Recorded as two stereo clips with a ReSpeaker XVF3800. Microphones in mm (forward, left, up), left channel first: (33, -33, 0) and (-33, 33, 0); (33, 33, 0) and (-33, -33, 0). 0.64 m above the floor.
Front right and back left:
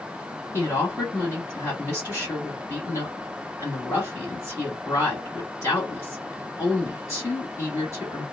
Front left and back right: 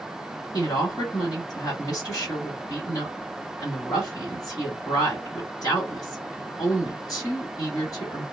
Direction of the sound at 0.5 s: 5° left.